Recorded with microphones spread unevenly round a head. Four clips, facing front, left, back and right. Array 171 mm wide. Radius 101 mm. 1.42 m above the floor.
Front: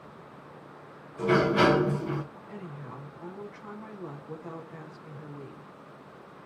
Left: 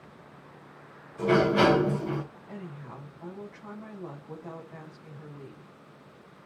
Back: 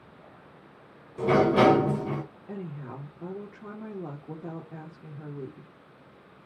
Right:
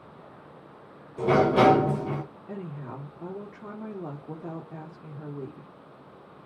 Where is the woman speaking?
135° right, 4 m.